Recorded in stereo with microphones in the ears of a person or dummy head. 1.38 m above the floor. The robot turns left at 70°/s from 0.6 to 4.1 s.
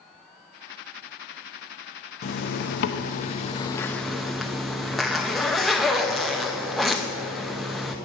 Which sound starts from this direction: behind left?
A zipper, at 2.2 s.